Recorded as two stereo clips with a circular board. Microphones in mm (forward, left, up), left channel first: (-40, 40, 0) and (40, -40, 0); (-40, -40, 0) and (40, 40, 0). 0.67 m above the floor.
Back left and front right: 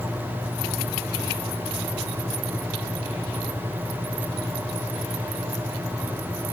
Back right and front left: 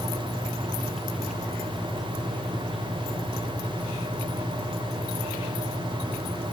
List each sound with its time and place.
Only background noise.